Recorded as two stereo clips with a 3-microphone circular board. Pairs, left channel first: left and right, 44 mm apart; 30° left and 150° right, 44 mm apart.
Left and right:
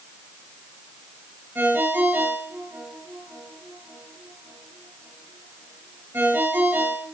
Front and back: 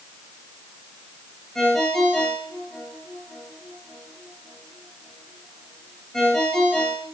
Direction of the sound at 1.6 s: 50° right.